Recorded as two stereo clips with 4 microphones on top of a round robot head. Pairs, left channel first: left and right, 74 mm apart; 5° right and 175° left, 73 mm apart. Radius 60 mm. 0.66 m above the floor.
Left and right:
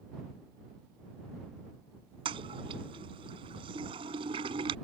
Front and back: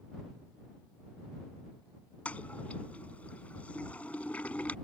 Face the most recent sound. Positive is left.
turn(degrees=-80)